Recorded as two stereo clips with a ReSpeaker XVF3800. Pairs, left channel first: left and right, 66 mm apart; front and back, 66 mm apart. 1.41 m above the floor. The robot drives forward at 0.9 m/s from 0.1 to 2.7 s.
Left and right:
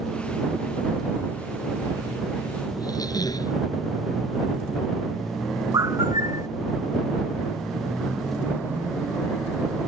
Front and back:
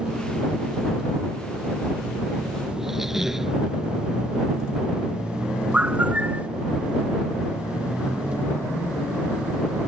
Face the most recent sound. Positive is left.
turn(degrees=-110)